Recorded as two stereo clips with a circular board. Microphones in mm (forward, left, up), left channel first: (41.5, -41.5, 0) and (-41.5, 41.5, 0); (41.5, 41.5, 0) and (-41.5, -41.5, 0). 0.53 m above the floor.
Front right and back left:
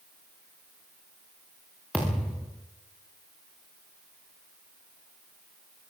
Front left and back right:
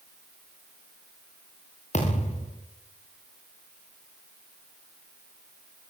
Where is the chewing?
No chewing in this recording.